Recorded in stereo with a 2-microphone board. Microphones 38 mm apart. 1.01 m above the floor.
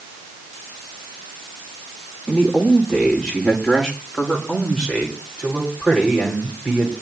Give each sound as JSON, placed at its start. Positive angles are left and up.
{"t": 2.3, "sound": "a man speaking", "side_deg": 10, "distance_m": 3.5}